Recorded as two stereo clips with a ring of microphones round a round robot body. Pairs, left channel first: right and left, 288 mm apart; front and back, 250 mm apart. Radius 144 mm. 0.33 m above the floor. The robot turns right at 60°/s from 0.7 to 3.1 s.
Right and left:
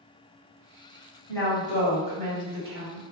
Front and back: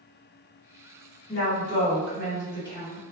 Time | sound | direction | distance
1.3 | a woman speaking | 20° right | 1.8 m